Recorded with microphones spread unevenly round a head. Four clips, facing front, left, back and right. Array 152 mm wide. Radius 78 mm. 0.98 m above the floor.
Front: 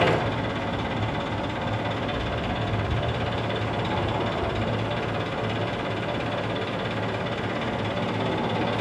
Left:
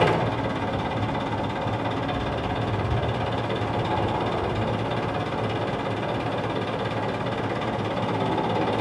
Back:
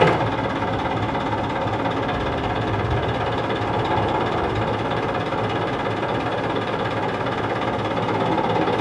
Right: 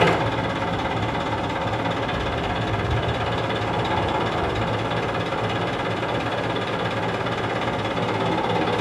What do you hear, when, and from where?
0.0 s an engine running: 175° right, 2 m